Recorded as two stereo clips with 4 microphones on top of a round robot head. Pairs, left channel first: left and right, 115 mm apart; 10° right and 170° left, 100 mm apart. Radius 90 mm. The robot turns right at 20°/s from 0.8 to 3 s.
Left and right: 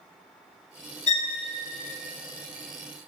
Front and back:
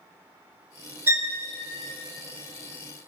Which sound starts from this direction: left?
A violin, at 1.1 s.